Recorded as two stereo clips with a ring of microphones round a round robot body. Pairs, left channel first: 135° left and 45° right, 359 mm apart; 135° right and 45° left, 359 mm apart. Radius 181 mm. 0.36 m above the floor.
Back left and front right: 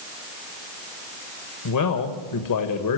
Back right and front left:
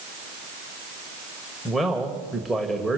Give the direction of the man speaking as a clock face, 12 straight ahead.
7 o'clock.